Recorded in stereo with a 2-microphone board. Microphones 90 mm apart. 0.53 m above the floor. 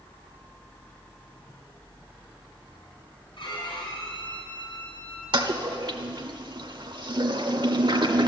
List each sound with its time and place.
3.4 s a violin: 60° left (ahead or behind), 4.5 m
5.3 s a toilet flushing: 60° right (ahead or behind), 1.2 m